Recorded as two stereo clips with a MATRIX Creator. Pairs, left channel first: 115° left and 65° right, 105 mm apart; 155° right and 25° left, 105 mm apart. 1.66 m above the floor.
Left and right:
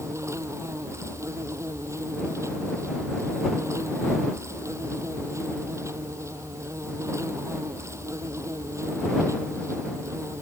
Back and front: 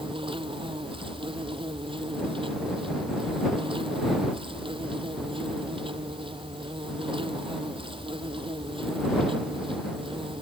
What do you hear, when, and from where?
0.0 s an insect: 5° right